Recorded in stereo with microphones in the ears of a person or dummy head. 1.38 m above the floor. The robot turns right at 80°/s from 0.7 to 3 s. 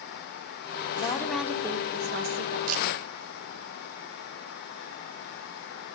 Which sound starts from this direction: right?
A camera shutter, at 2.7 s.